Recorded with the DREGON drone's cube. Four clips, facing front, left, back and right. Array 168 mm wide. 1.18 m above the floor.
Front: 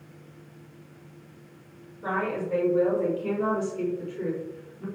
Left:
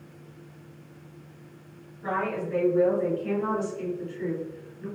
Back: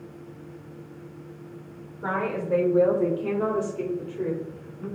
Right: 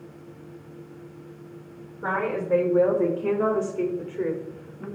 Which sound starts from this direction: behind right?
A woman speaking, at 2.0 s.